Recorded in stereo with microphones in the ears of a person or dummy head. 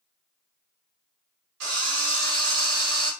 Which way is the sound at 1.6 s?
75° right (ahead or behind).